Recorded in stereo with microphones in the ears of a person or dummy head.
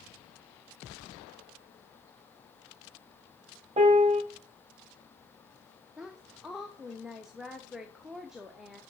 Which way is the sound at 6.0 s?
Centre (ahead or behind).